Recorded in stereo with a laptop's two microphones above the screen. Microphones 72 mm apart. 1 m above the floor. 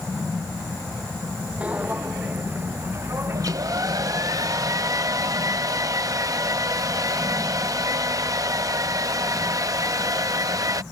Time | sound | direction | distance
1.6 | footsteps | 20° right (ahead or behind) | ?
3.4 | a hair dryer | 50° right (ahead or behind) | ?